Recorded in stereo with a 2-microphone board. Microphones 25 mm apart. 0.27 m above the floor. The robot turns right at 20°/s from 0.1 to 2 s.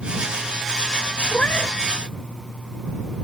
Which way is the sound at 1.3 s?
60° left (ahead or behind).